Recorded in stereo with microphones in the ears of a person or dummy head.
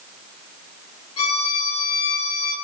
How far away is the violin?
About 3.5 m.